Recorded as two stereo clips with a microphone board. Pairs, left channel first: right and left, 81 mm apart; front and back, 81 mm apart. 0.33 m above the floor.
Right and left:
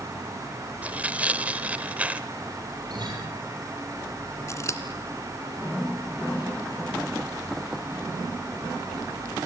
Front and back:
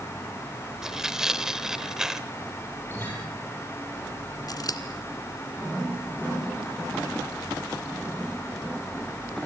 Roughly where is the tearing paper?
Behind left.